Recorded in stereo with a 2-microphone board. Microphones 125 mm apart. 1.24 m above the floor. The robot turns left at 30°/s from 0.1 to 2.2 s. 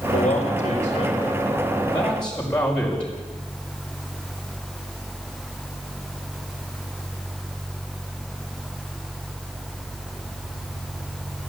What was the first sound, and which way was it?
A man speaking, 70° left.